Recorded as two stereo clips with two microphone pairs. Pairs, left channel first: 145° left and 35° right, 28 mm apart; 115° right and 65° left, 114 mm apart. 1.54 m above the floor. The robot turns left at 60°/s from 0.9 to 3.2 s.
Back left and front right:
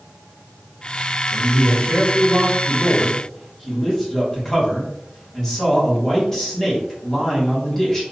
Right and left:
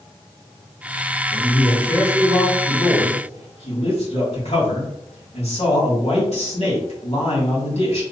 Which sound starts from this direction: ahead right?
A man speaking, at 1.3 s.